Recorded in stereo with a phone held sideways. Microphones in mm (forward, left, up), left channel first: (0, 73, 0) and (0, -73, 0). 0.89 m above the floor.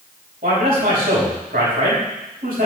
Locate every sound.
0.4 s a man speaking: 85° right, 5 m